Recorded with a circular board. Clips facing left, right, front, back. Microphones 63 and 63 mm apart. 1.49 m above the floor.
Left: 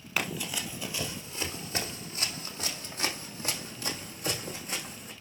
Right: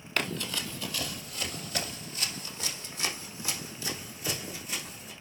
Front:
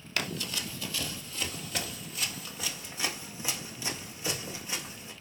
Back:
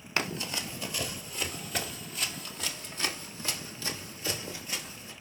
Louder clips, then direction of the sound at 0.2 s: Right 1 dB, back 2 dB; 155° left.